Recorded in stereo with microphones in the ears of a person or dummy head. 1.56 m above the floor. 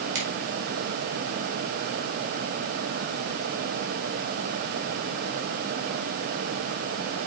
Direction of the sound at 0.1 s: 70° right (ahead or behind).